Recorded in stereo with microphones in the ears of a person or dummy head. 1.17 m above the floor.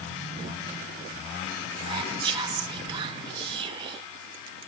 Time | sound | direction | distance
1.8 | whispering | 30° right (ahead or behind) | 0.6 m